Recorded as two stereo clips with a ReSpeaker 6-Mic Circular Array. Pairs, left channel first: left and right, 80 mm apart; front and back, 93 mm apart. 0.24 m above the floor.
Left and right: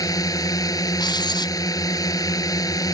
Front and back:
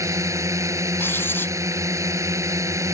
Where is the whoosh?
I don't hear a whoosh.